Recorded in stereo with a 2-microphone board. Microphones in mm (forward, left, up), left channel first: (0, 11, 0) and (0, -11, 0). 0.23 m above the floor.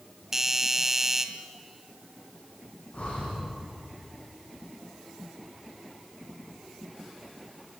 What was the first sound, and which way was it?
A doorbell, 15° right (ahead or behind).